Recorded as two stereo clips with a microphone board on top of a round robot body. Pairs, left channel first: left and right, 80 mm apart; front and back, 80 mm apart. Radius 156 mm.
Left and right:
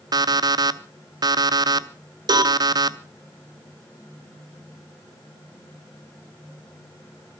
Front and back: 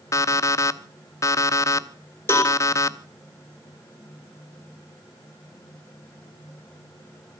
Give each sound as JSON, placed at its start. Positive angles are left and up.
{"t": 0.1, "sound": "an alarm clock", "azimuth_deg": -50, "distance_m": 0.8}
{"t": 2.3, "sound": "a cowbell", "azimuth_deg": -60, "distance_m": 3.0}